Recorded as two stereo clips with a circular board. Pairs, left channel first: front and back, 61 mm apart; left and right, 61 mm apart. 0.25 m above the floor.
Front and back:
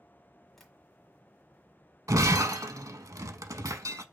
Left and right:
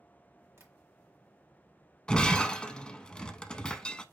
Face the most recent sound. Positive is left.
turn(degrees=165)